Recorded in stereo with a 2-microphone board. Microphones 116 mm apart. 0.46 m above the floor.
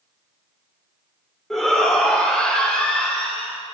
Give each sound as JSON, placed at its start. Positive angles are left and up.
{"t": 1.5, "sound": "a shout", "side_deg": 5, "distance_m": 1.4}